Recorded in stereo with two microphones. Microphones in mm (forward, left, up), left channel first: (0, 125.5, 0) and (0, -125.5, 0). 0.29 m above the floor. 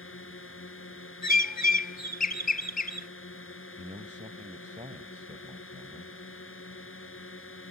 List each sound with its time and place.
0.0 s a drone: 55° left (ahead or behind)
1.2 s a bird: 35° left (ahead or behind)
3.8 s a man speaking: 30° right (ahead or behind)